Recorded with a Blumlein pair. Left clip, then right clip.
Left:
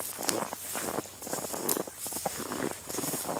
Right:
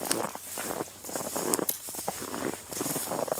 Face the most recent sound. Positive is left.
turn(degrees=-15)